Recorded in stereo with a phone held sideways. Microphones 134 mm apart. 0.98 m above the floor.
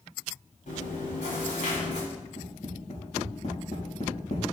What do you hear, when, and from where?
0.7 s chewing: 70° left (ahead or behind), 4.5 m
2.1 s tapping: 60° left (ahead or behind), 5.5 m